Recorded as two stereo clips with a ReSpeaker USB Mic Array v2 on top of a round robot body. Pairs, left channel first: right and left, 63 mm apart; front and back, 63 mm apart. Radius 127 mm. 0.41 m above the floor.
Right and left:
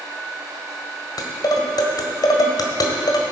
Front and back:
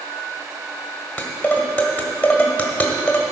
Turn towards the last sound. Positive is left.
turn(degrees=-70)